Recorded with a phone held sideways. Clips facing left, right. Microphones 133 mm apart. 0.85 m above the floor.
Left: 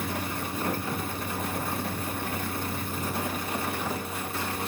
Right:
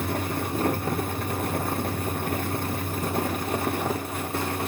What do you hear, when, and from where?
0.0 s a fan: 50° right (ahead or behind), 1.2 m